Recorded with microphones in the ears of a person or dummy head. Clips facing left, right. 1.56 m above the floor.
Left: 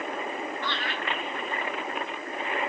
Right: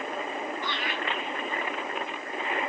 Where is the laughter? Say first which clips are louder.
Even; 15° right (ahead or behind), 0.9 m.